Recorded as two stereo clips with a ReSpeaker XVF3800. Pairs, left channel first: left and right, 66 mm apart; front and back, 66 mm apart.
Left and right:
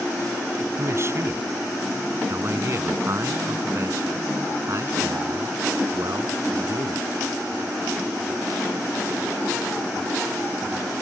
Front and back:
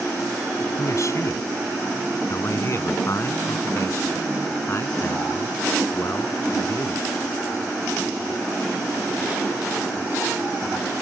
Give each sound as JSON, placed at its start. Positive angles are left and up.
{"t": 0.8, "sound": "a man speaking", "azimuth_deg": -40}